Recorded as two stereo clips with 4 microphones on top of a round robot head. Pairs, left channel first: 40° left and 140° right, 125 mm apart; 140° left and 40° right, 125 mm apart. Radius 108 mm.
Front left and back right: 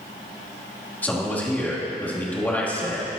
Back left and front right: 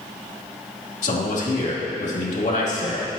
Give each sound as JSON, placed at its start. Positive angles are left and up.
{"t": 1.0, "sound": "a man speaking", "azimuth_deg": 115, "distance_m": 3.0}